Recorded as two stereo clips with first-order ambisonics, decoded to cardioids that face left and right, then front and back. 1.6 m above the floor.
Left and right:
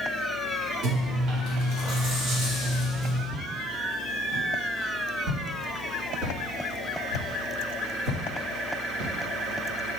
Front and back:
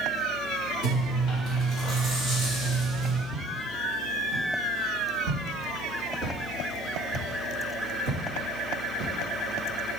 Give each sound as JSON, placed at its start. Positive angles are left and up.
{"t": 0.8, "sound": "chewing", "azimuth_deg": -120, "distance_m": 3.0}
{"t": 3.3, "sound": "footsteps", "azimuth_deg": -135, "distance_m": 2.5}